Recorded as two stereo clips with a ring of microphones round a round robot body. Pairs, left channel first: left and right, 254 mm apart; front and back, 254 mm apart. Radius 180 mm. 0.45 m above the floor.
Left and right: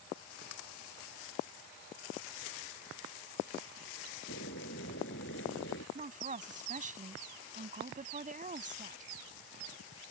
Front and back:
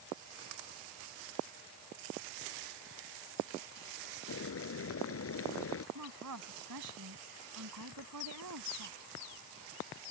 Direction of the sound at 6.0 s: 150° right.